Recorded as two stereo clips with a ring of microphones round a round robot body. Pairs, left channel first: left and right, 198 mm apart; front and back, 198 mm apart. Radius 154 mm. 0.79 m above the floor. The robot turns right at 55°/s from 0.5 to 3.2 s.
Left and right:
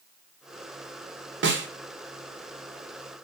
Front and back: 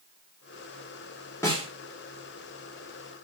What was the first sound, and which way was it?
A snare drum, 80° right.